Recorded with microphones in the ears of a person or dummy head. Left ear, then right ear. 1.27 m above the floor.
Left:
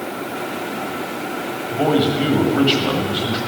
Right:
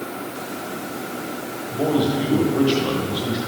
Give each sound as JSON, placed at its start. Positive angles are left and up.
{"t": 1.7, "sound": "a man speaking", "side_deg": 15, "distance_m": 1.5}